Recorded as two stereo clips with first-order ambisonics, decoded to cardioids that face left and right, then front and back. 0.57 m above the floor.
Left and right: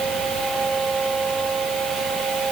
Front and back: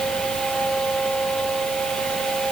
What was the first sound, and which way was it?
Only background noise.